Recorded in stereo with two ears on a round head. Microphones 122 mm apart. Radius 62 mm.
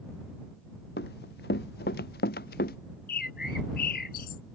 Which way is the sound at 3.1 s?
70° left (ahead or behind).